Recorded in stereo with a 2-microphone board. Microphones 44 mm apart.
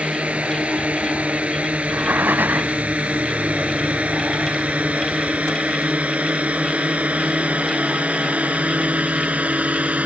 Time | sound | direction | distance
0.0 | a drone | 30° right (ahead or behind) | ?
1.8 | breathing | 45° right (ahead or behind) | ?